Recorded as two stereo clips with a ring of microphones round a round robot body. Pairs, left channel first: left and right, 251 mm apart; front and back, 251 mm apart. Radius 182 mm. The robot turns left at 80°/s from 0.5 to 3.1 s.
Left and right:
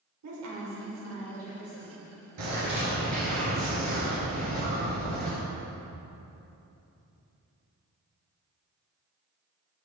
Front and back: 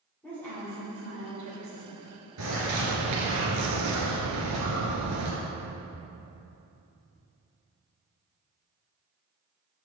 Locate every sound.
0.2 s a woman speaking: 85° right, 3 m; by 2.1 s 150° left, 3 m
2.4 s a bird: 125° right, 2 m; by 5.3 s straight behind, 2 m